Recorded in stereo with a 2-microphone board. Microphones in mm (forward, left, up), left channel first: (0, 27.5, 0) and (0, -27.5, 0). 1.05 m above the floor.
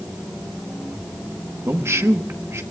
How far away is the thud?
No thud in this recording.